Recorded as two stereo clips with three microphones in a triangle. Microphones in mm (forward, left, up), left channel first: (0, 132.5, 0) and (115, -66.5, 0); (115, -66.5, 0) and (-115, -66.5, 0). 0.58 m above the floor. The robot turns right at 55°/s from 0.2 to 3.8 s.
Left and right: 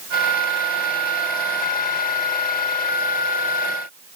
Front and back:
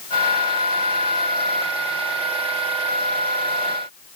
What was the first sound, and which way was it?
Only background noise.